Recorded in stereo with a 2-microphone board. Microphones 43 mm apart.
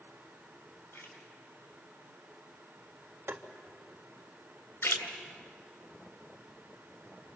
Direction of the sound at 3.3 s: 70° right (ahead or behind).